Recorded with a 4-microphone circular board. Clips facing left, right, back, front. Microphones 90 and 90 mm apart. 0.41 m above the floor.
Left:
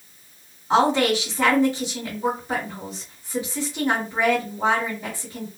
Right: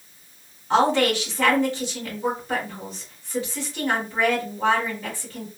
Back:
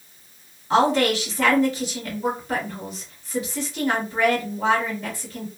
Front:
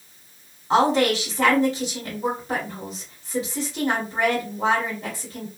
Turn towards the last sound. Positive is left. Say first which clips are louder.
# left 1 dB, even
turn(degrees=25)